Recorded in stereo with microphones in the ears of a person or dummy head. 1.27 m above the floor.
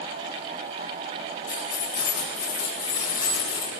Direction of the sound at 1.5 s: 85° left.